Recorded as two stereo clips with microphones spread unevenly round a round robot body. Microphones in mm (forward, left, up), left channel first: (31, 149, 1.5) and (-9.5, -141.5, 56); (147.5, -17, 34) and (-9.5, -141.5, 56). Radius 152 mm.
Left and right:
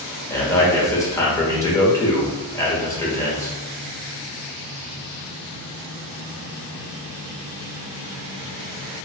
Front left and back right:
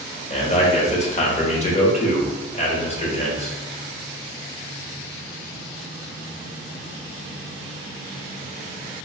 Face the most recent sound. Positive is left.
turn(degrees=20)